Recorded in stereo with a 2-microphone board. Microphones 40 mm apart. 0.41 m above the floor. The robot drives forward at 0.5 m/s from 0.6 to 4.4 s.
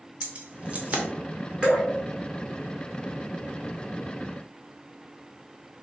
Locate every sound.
0.2 s keys jangling: 35° right (ahead or behind), 0.8 m
1.6 s dripping: 20° right (ahead or behind), 1.8 m